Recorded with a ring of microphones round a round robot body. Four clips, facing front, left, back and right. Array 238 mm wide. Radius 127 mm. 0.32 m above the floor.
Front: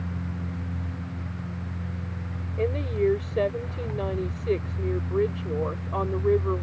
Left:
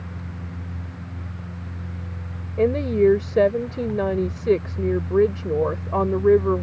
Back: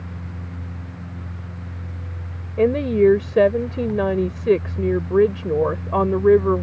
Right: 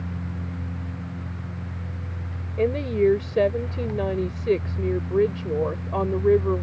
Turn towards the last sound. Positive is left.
turn(degrees=165)